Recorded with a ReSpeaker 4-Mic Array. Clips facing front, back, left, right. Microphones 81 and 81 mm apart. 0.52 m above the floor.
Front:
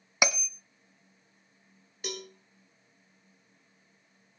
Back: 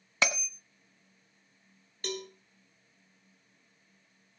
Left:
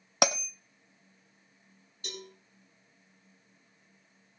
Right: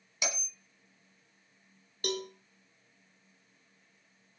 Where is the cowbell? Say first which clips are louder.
Back 2 dB, right 10 dB; 80° right, 2.5 m.